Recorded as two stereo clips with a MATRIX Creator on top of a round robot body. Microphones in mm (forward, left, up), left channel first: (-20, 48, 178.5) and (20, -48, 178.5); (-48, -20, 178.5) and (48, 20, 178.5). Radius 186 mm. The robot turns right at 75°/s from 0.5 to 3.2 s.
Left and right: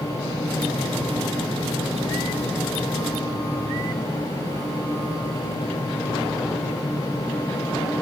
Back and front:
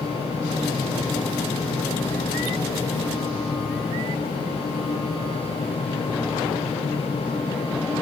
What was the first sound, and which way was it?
Only background noise.